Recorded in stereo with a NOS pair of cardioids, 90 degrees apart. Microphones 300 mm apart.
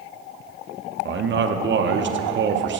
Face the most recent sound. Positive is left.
turn(degrees=-40)